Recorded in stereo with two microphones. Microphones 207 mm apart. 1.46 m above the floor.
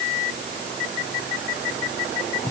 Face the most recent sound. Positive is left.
No sound to turn to.